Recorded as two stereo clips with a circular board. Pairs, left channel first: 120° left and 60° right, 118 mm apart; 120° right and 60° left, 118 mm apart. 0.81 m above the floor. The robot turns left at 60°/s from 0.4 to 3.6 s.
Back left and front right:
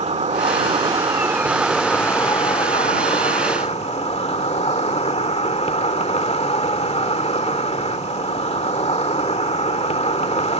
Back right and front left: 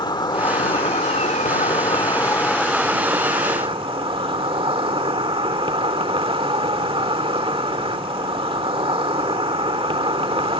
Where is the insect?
70° right; by 10.6 s 100° left.